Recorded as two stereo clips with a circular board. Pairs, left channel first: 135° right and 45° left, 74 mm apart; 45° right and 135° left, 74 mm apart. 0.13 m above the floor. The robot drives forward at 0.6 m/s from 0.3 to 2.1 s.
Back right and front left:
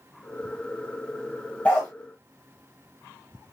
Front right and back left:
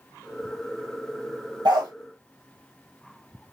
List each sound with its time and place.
1.6 s a dog barking: 155° left, 1.1 m; by 1.9 s 160° left, 1.3 m